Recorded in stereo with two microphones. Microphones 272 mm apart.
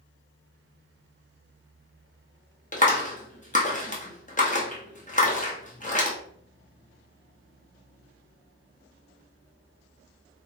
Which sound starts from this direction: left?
A clap, at 2.7 s.